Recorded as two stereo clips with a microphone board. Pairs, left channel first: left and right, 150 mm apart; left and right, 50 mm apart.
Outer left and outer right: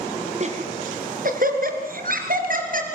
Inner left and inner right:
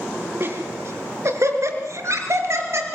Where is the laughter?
50° right (ahead or behind), 3.5 m; by 3.0 s 65° right (ahead or behind), 5 m.